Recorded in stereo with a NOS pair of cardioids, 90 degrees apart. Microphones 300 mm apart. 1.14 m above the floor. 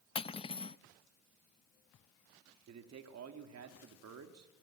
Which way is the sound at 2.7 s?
60° right.